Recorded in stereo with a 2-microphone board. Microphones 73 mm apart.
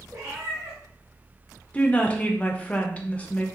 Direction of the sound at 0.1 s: 50° right (ahead or behind).